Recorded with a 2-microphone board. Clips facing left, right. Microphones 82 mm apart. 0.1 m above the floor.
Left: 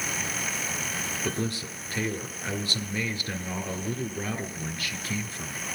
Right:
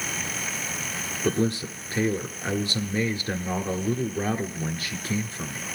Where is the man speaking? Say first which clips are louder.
Right 9 dB; 25° right (ahead or behind), 1.3 m.